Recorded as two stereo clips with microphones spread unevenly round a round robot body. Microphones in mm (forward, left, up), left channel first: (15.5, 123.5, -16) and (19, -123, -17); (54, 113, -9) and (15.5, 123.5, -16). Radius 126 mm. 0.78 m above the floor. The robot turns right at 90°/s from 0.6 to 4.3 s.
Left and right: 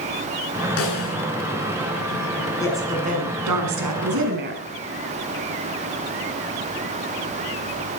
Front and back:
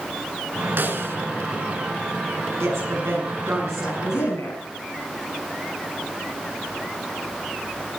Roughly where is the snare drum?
Behind left.